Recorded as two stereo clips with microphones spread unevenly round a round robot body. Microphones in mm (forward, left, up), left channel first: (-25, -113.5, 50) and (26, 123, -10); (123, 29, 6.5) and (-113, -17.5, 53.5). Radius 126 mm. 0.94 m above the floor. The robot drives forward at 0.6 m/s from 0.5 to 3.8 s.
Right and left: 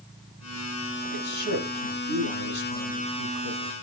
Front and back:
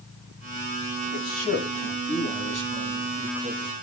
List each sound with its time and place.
1.1 s a man speaking: 85° right, 6.5 m; by 3.7 s 100° right, 6.5 m